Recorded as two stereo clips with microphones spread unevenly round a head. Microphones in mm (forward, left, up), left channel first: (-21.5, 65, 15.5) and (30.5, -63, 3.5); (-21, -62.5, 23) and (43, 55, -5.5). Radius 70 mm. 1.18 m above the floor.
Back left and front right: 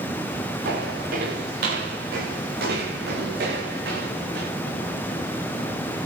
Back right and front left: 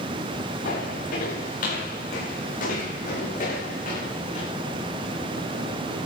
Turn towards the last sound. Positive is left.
turn(degrees=-85)